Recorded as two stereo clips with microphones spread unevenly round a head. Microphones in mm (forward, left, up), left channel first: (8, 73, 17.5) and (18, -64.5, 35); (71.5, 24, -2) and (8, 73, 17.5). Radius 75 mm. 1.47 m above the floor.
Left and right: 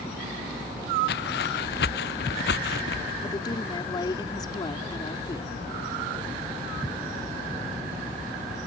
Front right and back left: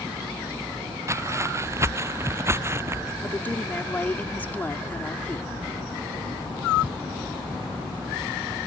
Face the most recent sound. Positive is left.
turn(degrees=30)